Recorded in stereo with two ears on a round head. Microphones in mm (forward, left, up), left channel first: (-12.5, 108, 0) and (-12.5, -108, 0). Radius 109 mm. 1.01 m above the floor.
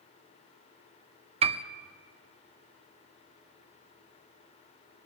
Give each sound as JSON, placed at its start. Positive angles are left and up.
{"t": 1.4, "sound": "a piano", "side_deg": -25, "distance_m": 0.6}